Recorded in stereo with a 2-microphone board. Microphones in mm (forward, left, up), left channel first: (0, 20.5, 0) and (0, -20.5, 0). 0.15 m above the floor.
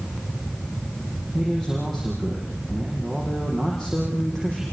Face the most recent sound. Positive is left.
turn(degrees=10)  # may be behind; listen again after turning